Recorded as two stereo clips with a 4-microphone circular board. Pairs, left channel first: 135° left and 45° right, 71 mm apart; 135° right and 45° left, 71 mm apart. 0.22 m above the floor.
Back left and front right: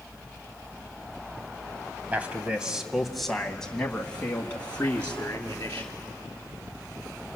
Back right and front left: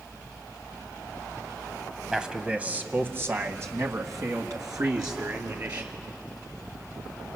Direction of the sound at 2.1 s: 25° right.